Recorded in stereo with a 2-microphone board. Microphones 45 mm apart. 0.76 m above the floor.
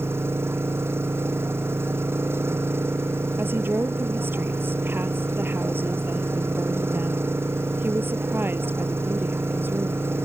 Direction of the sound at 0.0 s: 60° right (ahead or behind).